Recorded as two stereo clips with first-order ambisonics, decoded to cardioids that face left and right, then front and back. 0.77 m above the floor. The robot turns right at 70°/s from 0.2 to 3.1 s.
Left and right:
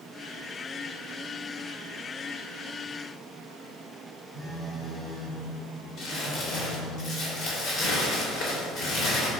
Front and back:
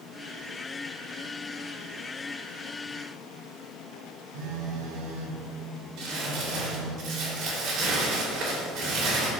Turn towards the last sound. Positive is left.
turn(degrees=135)